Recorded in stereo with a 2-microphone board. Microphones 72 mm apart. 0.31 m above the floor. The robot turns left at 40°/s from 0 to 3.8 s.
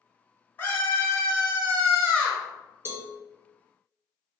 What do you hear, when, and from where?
0.6 s a scream: 30° left (ahead or behind), 1.4 m; by 2.4 s 15° left (ahead or behind), 1.4 m
2.9 s a cowbell: 40° right (ahead or behind), 0.6 m; by 3.1 s 30° right (ahead or behind), 0.6 m